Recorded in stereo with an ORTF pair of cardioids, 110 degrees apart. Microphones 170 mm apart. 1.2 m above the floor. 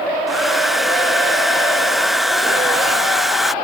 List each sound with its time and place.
0.3 s a hair dryer: straight ahead